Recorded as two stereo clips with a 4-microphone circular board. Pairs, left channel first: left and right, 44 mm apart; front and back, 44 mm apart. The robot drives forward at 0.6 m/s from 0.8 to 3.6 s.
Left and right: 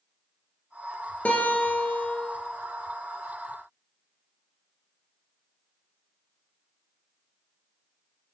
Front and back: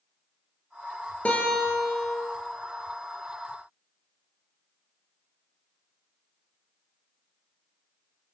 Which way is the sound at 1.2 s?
45° left.